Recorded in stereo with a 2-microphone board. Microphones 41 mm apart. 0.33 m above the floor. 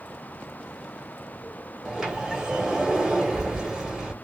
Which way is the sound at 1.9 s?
15° right (ahead or behind).